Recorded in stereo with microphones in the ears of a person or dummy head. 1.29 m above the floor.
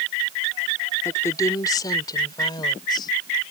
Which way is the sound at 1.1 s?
10° left (ahead or behind).